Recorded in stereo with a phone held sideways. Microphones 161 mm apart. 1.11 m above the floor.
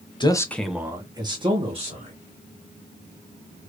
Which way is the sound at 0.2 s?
30° left (ahead or behind).